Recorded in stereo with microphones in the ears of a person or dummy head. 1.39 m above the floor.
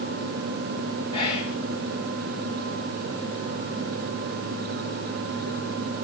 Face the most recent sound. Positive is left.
turn(degrees=35)  # may be behind; listen again after turning